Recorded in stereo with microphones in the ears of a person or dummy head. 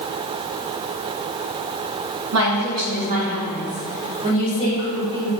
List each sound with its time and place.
2.3 s a woman speaking: 70° right (ahead or behind), 1.0 m; by 5.3 s 30° right (ahead or behind), 4 m